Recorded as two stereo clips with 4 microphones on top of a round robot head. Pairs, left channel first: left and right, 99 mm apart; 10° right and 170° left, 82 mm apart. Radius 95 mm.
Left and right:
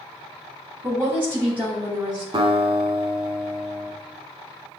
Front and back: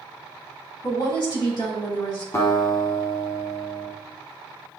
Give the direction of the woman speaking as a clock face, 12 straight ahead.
1 o'clock.